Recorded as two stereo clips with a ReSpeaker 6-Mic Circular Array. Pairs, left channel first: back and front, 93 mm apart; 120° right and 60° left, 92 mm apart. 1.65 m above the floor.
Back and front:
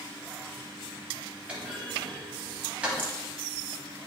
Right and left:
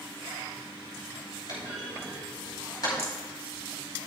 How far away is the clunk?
About 4.5 m.